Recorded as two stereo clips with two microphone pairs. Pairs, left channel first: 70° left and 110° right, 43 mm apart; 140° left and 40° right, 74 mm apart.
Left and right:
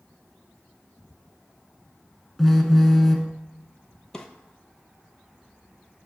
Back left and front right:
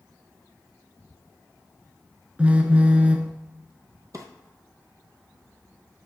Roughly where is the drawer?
Ahead.